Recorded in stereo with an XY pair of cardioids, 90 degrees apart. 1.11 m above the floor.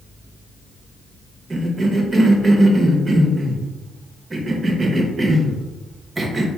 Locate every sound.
1.5 s a cough: 35° right, 0.8 m